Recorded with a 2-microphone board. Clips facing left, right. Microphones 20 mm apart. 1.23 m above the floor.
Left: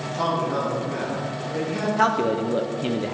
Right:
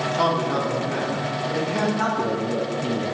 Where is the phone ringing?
I don't hear a phone ringing.